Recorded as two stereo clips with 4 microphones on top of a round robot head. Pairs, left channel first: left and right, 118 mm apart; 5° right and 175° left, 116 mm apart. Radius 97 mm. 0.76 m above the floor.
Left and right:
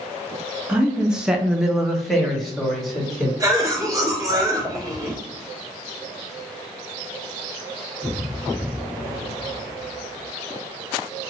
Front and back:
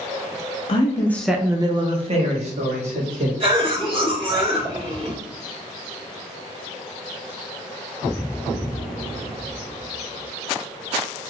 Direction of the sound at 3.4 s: 150° right.